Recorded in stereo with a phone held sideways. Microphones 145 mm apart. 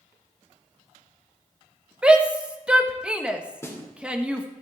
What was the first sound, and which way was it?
A shout, 5° right (ahead or behind).